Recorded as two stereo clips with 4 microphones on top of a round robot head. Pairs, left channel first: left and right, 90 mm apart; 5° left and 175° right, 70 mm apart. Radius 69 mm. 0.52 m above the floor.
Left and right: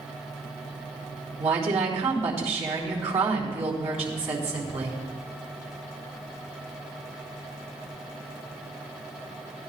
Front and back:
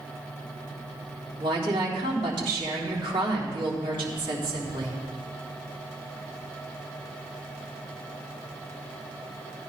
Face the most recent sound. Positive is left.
turn(degrees=-170)